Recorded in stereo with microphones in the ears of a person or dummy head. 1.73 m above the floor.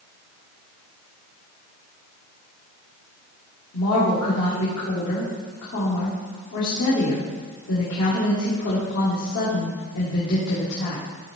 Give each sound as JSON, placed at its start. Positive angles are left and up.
{"t": 3.7, "sound": "a woman speaking", "side_deg": 70, "distance_m": 1.9}